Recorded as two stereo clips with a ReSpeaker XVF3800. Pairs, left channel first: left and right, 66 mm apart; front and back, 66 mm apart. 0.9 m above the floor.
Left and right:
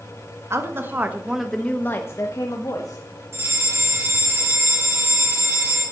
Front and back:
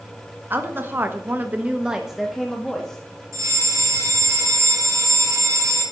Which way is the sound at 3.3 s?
140° right.